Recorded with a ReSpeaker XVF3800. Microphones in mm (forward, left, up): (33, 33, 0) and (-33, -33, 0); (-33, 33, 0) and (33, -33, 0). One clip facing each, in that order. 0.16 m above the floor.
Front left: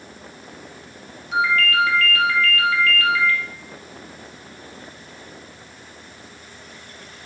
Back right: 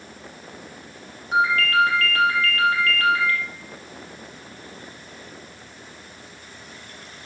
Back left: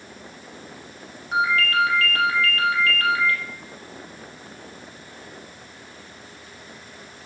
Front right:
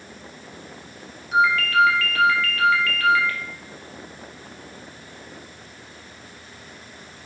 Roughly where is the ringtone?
Behind.